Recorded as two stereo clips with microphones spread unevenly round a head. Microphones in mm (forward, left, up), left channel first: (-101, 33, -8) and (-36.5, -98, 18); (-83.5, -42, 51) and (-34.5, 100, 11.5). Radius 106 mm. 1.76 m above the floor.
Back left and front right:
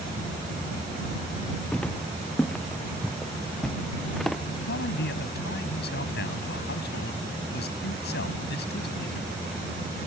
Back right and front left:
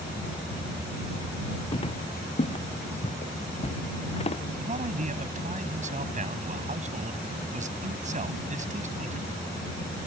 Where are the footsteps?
160° right; by 4.4 s 155° right.